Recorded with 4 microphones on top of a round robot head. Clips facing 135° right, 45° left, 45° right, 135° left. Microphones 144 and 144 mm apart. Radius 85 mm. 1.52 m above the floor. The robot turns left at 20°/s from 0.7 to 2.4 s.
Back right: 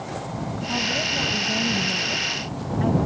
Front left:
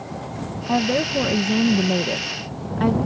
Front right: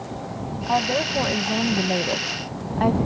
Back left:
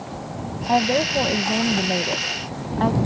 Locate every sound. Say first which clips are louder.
0.7 s a woman speaking: front left 12 dB, back left 3 dB; 65° left; by 3.0 s 30° left